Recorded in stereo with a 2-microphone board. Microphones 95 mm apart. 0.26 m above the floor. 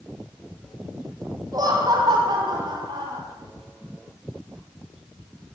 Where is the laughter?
40° right (ahead or behind), 1.5 m; by 3.2 s 60° right (ahead or behind), 2 m.